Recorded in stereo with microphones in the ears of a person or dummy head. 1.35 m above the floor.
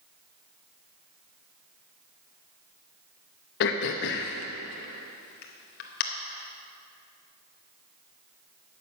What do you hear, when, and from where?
3.6 s throat clearing: 45° left (ahead or behind), 0.8 m